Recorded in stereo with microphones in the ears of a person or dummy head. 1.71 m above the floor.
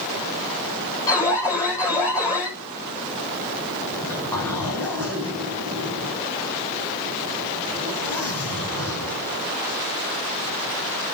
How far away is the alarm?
About 7.5 m.